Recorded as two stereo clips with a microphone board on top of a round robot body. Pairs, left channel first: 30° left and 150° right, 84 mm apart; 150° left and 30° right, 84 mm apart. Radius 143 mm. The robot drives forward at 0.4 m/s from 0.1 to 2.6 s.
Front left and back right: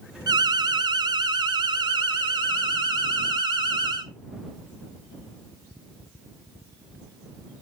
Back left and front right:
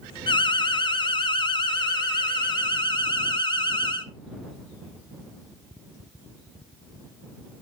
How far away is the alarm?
About 1.0 m.